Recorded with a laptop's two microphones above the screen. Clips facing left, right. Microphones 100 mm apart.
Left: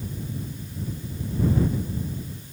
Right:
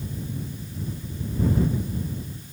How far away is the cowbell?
No cowbell in this recording.